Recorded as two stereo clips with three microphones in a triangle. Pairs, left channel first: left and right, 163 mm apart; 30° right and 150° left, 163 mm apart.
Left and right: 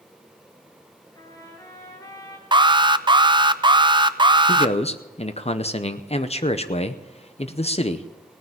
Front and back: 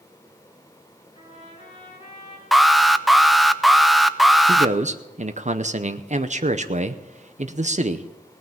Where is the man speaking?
125° left, 0.7 m.